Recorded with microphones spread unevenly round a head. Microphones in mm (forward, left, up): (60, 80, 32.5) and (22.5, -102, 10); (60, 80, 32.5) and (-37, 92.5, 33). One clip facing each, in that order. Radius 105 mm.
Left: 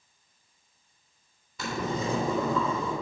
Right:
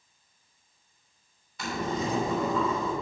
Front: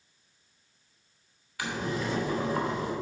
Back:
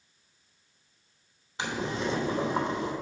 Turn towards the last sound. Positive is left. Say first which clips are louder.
# even, back 1 dB
turn(degrees=105)